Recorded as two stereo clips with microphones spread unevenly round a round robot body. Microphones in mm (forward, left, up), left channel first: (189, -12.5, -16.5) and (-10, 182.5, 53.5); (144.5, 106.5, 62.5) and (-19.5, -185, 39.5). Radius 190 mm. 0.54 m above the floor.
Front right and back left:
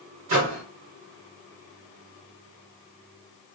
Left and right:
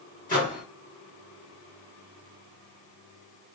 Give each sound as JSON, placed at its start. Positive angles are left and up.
{"t": 0.3, "sound": "a microwave", "azimuth_deg": 125, "distance_m": 1.2}